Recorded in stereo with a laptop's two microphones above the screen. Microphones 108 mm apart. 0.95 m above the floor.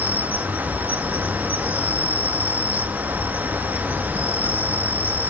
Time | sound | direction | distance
0.0 | an insect | 15° right (ahead or behind) | 1.1 m